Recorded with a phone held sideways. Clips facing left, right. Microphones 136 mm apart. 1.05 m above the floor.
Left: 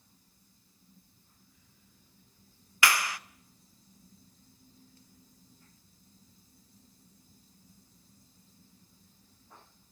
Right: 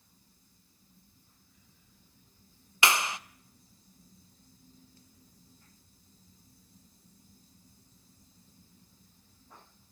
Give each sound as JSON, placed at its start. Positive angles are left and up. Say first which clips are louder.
{"t": 2.8, "sound": "a clap", "louder": "right 1 dB", "side_deg": -20, "distance_m": 0.6}